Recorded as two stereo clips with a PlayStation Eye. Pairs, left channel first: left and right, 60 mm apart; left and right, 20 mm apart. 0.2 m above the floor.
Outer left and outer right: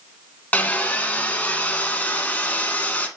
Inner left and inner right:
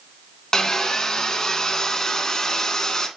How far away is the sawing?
About 0.8 m.